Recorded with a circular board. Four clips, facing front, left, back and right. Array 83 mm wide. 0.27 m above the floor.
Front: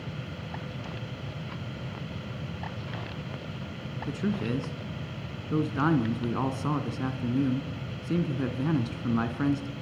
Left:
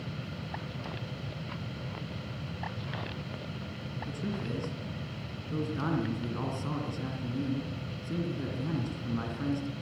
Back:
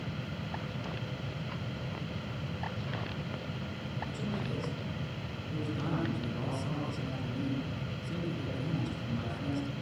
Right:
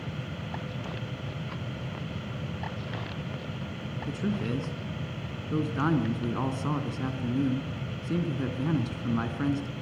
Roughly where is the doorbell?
I don't hear a doorbell.